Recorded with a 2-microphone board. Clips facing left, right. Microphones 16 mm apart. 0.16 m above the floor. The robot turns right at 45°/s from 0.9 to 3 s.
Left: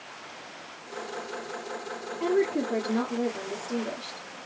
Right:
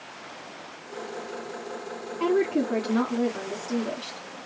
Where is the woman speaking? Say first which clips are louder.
Right 2 dB; 95° right, 1.9 m; by 4.3 s 60° right, 1.9 m.